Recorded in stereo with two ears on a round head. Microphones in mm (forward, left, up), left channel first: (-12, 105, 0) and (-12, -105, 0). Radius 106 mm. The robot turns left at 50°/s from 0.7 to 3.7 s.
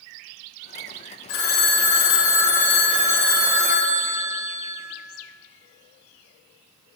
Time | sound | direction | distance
1.3 | a phone ringing | 105° left | 1.4 m